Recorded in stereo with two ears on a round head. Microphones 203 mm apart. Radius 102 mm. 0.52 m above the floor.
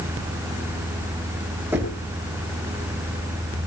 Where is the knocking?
10° right (ahead or behind), 7.5 m.